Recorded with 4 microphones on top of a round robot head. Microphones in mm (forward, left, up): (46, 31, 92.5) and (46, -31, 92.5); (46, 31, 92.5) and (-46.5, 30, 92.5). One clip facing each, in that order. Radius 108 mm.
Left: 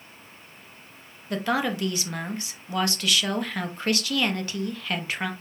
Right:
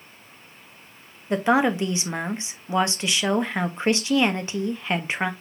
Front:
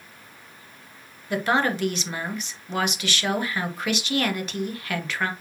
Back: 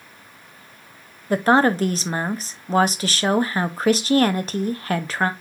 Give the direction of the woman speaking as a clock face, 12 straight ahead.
5 o'clock.